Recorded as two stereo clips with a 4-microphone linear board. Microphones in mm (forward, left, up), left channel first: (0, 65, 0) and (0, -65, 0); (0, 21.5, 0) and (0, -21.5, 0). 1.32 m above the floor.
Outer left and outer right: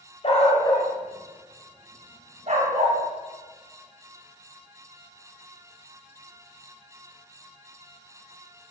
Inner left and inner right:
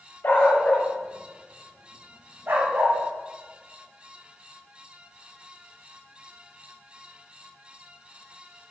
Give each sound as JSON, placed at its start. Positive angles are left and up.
{"t": 0.2, "sound": "a dog barking", "side_deg": 50, "distance_m": 1.6}